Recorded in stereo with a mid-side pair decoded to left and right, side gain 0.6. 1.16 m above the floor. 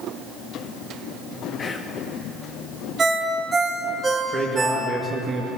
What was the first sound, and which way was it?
Whispering, 30° left.